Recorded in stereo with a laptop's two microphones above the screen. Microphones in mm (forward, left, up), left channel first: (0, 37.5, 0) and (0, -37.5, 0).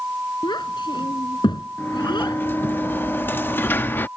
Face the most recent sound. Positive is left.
turn(degrees=30)  # may be behind; listen again after turning